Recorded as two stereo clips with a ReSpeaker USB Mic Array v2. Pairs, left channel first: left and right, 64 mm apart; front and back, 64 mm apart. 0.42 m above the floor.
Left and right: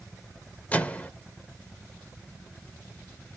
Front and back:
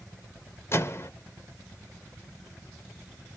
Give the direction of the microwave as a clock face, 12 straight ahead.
11 o'clock.